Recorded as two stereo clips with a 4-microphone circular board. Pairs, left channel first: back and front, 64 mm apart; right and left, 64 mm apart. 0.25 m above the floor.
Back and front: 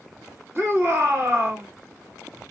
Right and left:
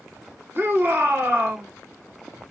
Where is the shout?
40° left, 2.5 m.